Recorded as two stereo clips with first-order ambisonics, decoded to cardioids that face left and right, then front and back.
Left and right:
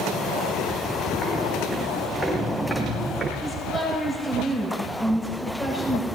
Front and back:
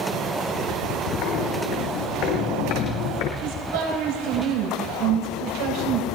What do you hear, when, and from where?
1.2 s footsteps: 20° left, 4 m; by 3.3 s 10° right, 3.5 m
3.4 s a woman speaking: 170° left, 8.5 m